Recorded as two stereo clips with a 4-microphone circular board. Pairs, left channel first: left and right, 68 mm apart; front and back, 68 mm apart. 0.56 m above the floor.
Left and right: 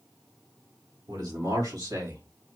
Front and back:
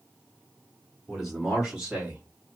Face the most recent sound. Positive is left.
turn(degrees=-110)